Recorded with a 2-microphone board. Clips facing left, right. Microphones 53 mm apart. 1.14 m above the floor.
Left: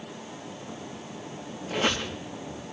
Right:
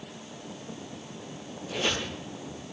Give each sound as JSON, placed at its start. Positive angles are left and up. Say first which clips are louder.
{"t": 1.7, "sound": "a squeak", "louder": "left 3 dB", "side_deg": 45, "distance_m": 3.5}